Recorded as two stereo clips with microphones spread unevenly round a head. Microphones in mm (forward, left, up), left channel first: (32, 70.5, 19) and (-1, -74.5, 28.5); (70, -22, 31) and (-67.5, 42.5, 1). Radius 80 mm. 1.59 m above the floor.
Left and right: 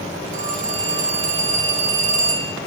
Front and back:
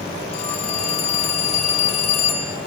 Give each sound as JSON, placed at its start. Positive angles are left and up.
{"t": 0.3, "sound": "a phone ringing", "azimuth_deg": -70, "distance_m": 1.5}